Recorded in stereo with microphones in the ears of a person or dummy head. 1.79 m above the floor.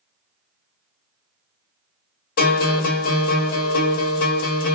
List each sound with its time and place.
2.4 s a guitar: 45° left (ahead or behind), 1.0 m